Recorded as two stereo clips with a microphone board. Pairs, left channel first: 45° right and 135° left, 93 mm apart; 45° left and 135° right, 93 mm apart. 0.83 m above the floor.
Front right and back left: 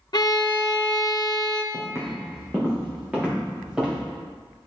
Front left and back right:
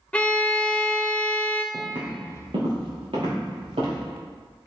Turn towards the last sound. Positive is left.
turn(degrees=-145)